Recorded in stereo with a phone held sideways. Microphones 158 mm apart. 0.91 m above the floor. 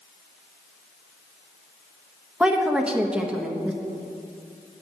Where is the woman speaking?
5° right (ahead or behind), 1.1 m.